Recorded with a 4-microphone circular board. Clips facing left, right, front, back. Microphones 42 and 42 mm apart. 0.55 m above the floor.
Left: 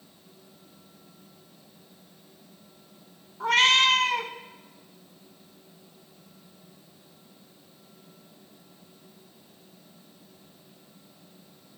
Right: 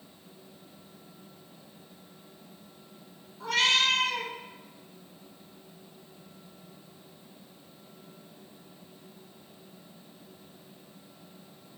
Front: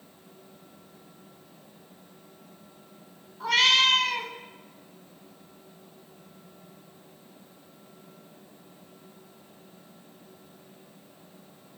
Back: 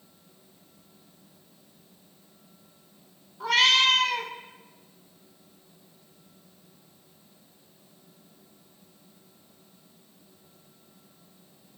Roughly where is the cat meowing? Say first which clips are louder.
Left 5 dB, even; left.